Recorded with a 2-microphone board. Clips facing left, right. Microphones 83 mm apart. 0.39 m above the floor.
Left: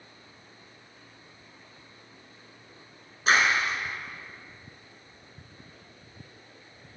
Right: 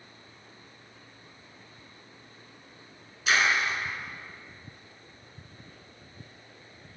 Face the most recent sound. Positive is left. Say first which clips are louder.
# left 2 dB
turn(degrees=35)  # may be behind; listen again after turning